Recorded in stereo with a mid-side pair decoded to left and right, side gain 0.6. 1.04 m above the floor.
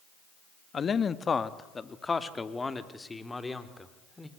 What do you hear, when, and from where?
0.7 s a man speaking: 35° left, 1.5 m; by 4.3 s 10° left, 3.5 m